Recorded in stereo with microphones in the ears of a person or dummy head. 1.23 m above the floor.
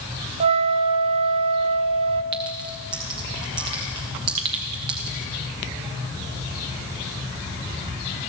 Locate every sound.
0.4 s a flute: 30° right (ahead or behind), 0.7 m
2.3 s a clink: 15° right (ahead or behind), 0.5 m